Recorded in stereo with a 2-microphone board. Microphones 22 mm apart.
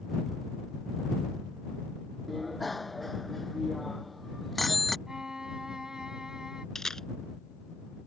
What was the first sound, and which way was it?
A bicycle bell, centre (ahead or behind).